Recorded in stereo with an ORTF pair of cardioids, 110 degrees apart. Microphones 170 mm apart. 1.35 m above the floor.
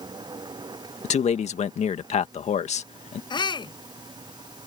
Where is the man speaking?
40° left.